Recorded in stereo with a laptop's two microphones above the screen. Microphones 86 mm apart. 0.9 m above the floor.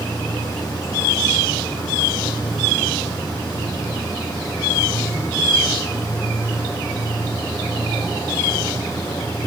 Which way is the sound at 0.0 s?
45° left (ahead or behind).